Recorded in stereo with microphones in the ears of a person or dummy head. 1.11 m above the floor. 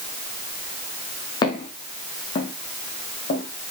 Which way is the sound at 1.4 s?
20° left (ahead or behind).